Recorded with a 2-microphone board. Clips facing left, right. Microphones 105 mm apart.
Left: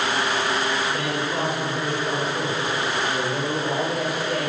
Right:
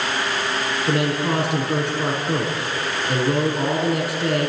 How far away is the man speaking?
About 9 m.